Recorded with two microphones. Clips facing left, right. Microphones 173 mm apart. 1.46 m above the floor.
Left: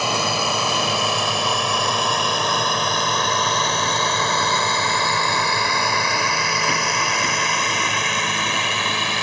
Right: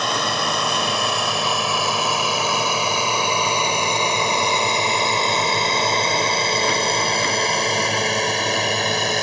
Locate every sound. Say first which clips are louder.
0.0 s a drone: left 1 dB; 5° left (ahead or behind); by 9.2 s 40° right (ahead or behind)